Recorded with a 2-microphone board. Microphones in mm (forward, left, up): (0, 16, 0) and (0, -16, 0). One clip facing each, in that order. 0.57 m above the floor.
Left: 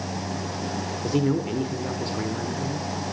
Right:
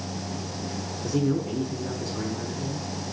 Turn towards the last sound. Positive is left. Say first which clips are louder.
# left 1 dB
turn(degrees=45)  # may be behind; listen again after turning